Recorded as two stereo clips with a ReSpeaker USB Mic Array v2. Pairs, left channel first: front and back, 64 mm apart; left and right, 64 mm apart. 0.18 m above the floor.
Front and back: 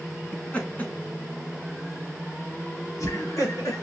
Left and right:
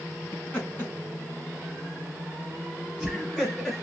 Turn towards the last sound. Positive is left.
turn(degrees=5)